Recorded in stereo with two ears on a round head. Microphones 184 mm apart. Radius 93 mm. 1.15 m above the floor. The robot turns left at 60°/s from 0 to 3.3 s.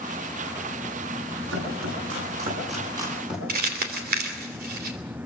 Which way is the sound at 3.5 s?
50° right (ahead or behind).